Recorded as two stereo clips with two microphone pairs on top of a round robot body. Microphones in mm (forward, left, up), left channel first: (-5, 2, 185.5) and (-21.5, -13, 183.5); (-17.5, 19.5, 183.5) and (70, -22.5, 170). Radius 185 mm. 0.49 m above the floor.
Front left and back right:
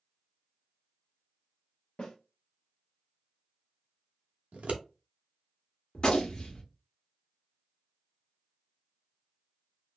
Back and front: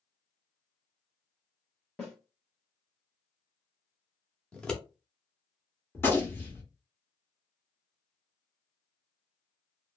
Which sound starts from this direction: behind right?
Scissors, at 4.5 s.